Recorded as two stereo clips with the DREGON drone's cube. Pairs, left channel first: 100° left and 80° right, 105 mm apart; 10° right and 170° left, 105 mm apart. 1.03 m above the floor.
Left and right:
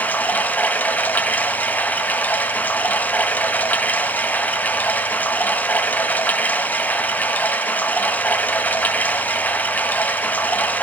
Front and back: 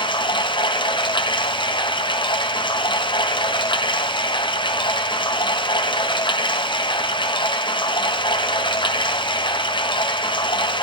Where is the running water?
25° left, 1.0 m.